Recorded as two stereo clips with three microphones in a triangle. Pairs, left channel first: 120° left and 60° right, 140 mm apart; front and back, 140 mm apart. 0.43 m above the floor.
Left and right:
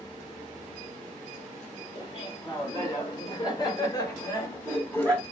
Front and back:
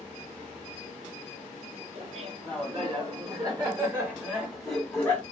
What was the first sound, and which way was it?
Laughter, 160° left.